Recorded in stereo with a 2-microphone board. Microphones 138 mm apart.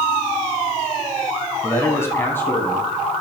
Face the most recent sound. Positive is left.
turn(degrees=10)  # may be behind; listen again after turning